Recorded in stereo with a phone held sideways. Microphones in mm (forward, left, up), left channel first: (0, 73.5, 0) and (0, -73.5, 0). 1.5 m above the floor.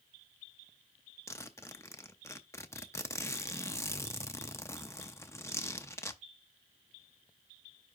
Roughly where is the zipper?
Centre.